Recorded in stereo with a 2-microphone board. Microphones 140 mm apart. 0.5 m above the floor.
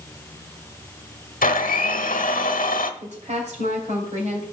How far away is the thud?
No thud in this recording.